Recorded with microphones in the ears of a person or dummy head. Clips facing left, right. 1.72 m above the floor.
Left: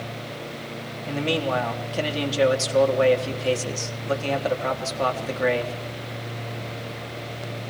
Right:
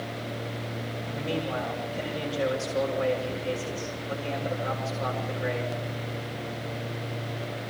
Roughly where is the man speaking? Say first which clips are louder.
Left 7 dB; left.